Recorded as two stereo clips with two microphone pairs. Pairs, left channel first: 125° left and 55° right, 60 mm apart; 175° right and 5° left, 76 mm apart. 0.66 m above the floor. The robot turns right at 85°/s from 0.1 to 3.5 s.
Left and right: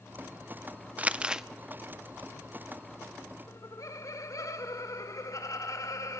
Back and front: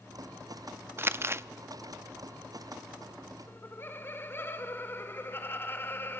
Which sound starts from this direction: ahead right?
Crumpling, at 1.0 s.